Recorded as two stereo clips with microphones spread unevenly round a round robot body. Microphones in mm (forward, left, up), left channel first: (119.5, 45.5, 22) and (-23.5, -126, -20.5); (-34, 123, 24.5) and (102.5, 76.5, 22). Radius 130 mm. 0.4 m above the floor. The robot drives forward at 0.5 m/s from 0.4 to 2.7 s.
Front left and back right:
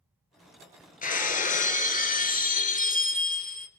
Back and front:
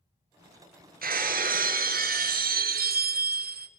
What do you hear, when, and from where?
1.0 s breaking glass: 5° right, 2.5 m